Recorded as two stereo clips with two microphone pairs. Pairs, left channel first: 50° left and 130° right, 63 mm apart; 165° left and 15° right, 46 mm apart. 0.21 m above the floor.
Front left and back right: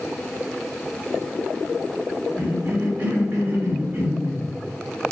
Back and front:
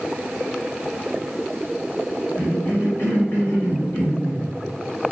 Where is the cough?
170° left, 1.8 m.